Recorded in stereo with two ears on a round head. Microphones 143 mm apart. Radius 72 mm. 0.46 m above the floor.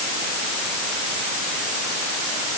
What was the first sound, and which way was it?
Only background noise.